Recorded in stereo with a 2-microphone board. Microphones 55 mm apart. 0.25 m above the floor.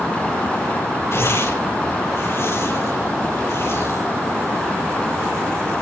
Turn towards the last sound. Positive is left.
turn(degrees=55)  # may be behind; listen again after turning